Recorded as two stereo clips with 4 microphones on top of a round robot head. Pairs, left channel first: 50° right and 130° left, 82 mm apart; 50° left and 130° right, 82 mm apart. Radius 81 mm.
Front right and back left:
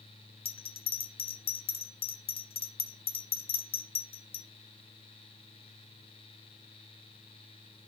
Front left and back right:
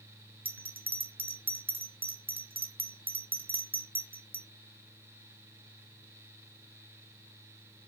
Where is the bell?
60° right, 1.6 m.